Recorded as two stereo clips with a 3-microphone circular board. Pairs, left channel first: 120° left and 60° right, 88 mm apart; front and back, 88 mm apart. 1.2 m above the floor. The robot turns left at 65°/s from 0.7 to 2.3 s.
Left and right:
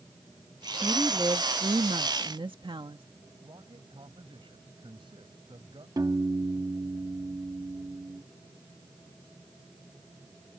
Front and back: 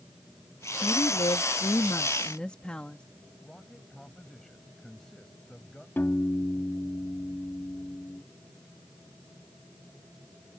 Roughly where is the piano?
Ahead right.